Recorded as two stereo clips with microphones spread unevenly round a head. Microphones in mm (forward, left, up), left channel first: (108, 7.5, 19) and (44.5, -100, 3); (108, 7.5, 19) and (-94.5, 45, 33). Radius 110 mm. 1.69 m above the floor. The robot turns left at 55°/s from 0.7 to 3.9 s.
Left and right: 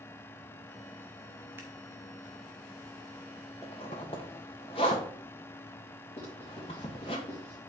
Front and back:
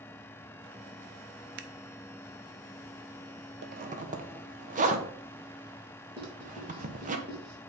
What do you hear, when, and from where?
1.6 s scissors: 160° left, 0.6 m; by 1.7 s 155° left, 0.6 m
3.6 s a zipper: 135° left, 1.1 m; by 7.2 s 120° left, 1.1 m
6.2 s writing: 125° left, 3.5 m